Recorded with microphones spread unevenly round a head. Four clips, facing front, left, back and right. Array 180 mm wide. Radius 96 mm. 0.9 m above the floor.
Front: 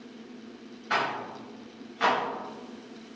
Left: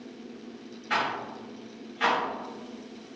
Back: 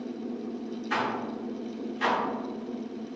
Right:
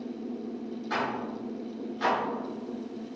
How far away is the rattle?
About 3 m.